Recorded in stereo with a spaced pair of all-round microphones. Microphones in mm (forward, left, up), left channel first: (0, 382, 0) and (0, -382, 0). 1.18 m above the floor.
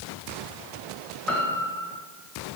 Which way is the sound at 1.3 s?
Centre (ahead or behind).